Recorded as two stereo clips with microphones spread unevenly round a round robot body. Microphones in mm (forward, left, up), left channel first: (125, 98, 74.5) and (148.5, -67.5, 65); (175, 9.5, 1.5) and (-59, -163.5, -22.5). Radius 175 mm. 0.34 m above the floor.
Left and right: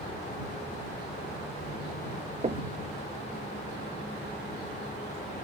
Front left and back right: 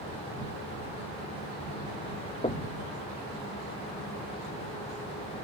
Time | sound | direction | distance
2.4 | knocking | 35° right | ?